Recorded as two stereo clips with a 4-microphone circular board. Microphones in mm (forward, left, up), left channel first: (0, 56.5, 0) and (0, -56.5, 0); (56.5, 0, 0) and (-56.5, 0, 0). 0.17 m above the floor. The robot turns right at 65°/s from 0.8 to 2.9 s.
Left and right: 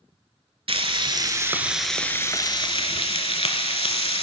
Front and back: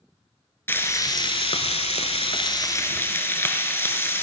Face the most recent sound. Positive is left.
turn(degrees=70)